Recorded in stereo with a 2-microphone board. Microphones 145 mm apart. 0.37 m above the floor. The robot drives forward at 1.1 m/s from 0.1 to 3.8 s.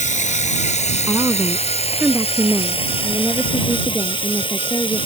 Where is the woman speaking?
20° right (ahead or behind); by 5.1 s 10° right (ahead or behind).